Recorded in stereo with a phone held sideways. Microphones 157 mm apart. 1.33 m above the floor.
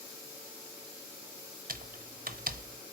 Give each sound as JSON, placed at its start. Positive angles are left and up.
{"t": 1.7, "sound": "typing on a keyboard", "side_deg": -65, "distance_m": 0.8}